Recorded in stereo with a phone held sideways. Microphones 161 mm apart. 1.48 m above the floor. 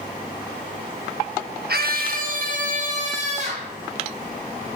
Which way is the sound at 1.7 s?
75° right (ahead or behind).